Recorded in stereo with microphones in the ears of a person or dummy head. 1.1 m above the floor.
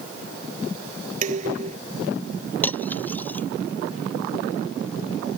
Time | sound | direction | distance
1.2 | dishes clattering | 40° right (ahead or behind) | ?
2.6 | cutlery clinking | 10° left (ahead or behind) | ?